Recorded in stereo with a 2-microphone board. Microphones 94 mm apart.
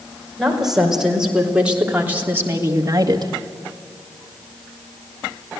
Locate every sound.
0.4 s a woman speaking: 5° right (ahead or behind), 5.5 m; by 3.3 s 50° right (ahead or behind), 1.9 m